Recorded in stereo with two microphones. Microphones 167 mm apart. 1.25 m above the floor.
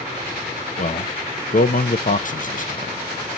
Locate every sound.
0.8 s a man speaking: 50° left (ahead or behind), 0.7 m